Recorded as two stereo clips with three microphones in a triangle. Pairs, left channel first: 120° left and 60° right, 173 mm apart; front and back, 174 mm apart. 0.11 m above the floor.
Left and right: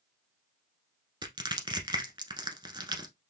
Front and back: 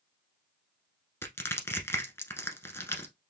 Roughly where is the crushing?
Ahead right.